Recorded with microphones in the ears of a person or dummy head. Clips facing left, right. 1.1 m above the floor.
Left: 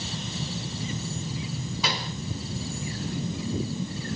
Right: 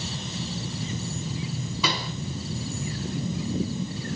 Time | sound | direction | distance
1.8 | a pop | 75° right (ahead or behind) | 3 m